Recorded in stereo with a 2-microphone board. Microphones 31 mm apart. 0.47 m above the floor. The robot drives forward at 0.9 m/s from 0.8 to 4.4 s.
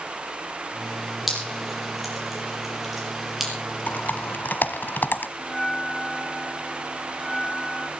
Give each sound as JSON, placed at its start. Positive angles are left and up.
{"t": 1.3, "sound": "dripping", "side_deg": -5, "distance_m": 7.0}
{"t": 3.9, "sound": "typing on a keyboard", "side_deg": 55, "distance_m": 1.4}
{"t": 5.4, "sound": "a bell", "side_deg": 10, "distance_m": 1.4}